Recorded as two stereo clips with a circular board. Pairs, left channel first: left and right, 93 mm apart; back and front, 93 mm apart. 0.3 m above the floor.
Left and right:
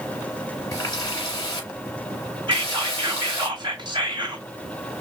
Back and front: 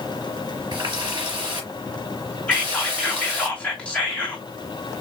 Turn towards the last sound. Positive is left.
turn(degrees=-105)